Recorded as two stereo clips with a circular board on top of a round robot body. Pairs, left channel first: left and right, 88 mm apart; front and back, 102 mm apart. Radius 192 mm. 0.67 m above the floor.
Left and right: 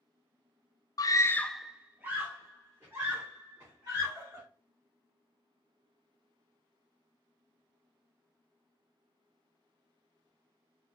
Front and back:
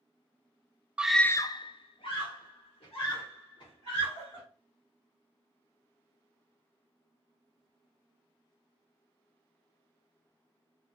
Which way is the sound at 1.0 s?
105° left.